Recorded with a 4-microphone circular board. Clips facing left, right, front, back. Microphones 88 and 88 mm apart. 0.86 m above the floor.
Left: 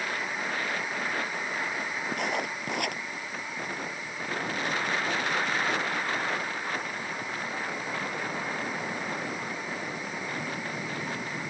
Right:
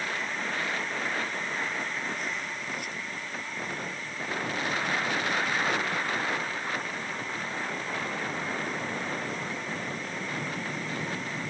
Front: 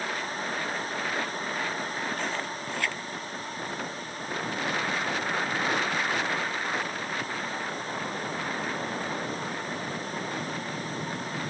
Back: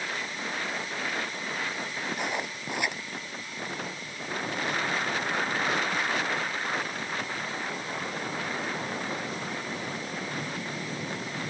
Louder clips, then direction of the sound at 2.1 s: Left 4 dB, front 1 dB; 105° left.